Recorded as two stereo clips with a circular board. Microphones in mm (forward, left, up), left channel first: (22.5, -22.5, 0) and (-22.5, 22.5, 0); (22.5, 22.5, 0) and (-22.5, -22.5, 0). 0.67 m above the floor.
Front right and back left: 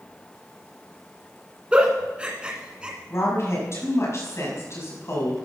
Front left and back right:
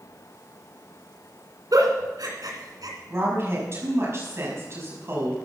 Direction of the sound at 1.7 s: 150° right.